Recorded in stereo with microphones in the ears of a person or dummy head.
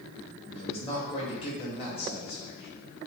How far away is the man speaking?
About 1.5 m.